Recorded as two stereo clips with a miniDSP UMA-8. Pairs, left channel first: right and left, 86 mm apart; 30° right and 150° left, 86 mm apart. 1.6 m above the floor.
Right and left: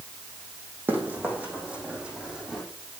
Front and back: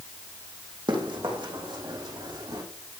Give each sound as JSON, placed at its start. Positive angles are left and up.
{"t": 0.9, "sound": "running footsteps", "azimuth_deg": 155, "distance_m": 4.5}